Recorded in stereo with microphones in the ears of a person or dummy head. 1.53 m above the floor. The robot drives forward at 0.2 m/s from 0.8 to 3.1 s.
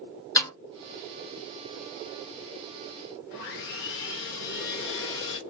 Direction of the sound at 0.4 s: 20° left (ahead or behind).